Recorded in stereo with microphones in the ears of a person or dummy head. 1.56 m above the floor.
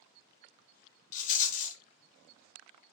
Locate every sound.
1.1 s a rattle: 45° left (ahead or behind), 0.6 m